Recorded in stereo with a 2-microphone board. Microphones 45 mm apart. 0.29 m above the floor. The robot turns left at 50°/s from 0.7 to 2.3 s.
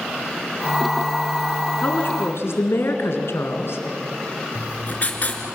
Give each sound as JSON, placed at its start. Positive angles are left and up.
{"t": 1.8, "sound": "a woman speaking", "side_deg": 45, "distance_m": 3.5}
{"t": 4.5, "sound": "writing", "side_deg": 35, "distance_m": 3.0}